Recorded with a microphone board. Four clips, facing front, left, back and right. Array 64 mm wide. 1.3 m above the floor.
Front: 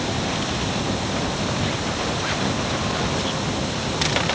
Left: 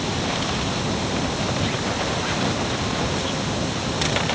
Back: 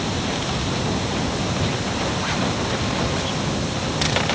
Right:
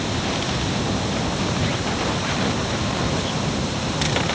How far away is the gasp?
I don't hear a gasp.